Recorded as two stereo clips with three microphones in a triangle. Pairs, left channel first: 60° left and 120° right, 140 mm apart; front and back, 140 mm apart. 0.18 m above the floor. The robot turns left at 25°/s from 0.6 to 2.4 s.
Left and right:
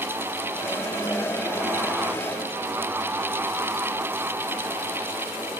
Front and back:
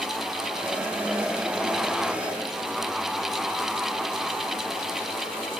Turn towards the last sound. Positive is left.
No sound to turn to.